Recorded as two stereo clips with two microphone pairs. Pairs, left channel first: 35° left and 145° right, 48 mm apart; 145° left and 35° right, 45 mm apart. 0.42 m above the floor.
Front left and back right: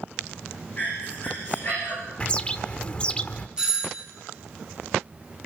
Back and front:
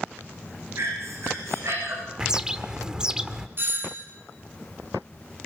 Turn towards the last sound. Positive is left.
turn(degrees=-70)